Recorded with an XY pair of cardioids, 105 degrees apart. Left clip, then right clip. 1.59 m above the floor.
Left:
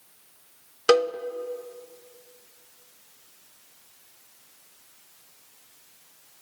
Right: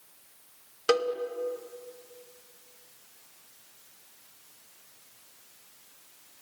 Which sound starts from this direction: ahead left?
A cowbell, at 0.9 s.